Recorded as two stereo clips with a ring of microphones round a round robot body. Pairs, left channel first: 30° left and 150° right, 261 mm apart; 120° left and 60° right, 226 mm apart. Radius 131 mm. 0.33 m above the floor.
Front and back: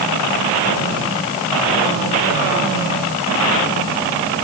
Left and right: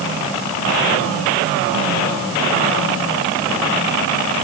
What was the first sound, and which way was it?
Only background noise.